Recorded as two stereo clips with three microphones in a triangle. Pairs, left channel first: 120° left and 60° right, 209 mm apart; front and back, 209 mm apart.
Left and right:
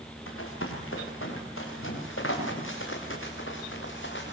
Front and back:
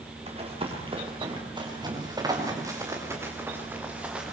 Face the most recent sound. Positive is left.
turn(degrees=95)